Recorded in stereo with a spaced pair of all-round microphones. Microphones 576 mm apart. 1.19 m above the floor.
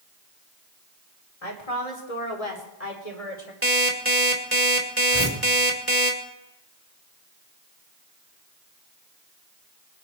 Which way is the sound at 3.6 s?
25° right (ahead or behind).